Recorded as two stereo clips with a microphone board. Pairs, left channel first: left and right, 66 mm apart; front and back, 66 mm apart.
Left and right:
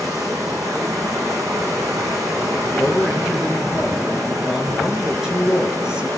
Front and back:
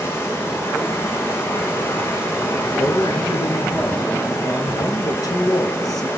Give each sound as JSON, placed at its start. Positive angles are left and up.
{"t": 0.0, "sound": "running water", "azimuth_deg": -55, "distance_m": 7.5}
{"t": 2.6, "sound": "a man speaking", "azimuth_deg": -10, "distance_m": 6.0}